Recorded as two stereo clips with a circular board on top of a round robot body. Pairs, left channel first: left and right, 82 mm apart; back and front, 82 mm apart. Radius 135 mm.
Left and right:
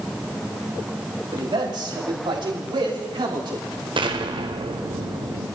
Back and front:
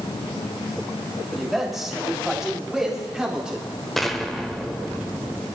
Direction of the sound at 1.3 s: 90° right.